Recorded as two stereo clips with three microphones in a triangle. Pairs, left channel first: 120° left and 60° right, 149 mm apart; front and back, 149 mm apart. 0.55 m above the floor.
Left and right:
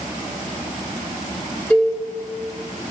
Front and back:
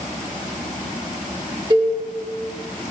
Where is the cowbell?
165° right, 1.5 m.